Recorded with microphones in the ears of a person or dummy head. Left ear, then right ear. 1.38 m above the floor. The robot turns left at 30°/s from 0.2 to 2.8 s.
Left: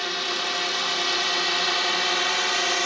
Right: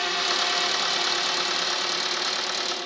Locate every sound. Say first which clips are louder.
0.0 s a drone: right 2 dB; 25° right (ahead or behind); by 2.9 s 55° left (ahead or behind)